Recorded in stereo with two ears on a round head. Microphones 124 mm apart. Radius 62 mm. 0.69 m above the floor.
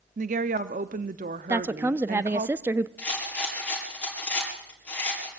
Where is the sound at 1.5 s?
15° right (ahead or behind), 0.6 m.